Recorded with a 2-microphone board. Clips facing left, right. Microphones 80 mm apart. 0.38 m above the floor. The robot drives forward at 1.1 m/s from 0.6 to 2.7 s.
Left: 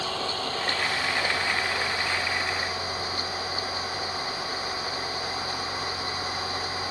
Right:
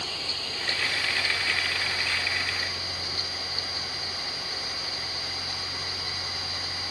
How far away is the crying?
I don't hear crying.